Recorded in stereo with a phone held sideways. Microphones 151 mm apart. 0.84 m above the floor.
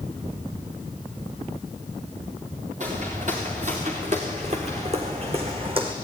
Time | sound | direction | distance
2.8 | footsteps | 55° right (ahead or behind) | 6 m